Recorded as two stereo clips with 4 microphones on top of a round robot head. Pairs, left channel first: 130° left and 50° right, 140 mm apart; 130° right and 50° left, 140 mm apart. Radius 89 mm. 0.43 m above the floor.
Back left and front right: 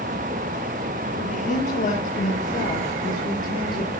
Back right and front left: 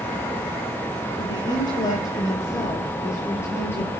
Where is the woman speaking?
170° left, 9.5 m; by 3.9 s 155° left, 8.5 m.